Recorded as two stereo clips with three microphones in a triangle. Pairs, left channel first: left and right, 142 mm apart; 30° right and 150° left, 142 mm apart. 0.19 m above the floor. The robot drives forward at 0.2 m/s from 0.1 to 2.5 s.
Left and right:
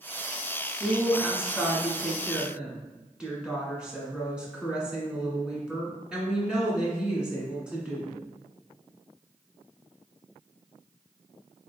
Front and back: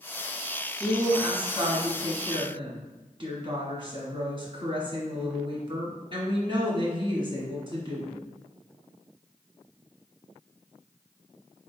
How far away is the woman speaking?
About 1.4 m.